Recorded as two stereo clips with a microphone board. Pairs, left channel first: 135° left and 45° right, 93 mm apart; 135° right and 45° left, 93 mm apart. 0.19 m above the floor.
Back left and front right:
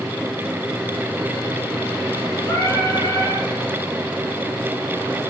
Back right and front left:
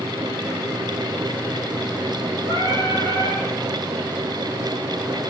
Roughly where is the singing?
Behind.